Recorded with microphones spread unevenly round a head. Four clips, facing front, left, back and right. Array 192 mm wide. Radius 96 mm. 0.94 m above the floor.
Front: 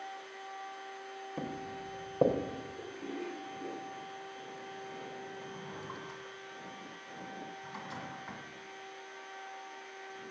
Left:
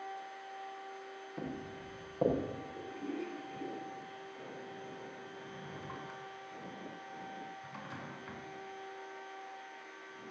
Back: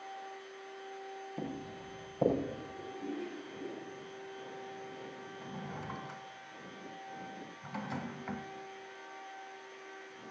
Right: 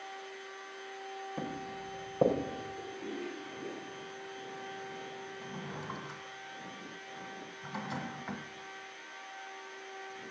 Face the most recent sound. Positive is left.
turn(degrees=-145)